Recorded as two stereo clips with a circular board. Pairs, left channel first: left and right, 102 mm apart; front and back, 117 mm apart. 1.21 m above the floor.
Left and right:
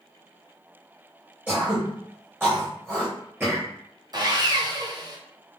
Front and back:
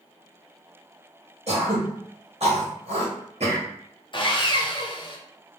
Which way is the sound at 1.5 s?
160° right.